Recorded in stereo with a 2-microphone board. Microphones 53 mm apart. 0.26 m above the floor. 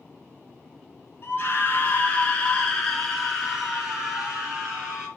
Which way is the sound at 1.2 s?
45° left (ahead or behind).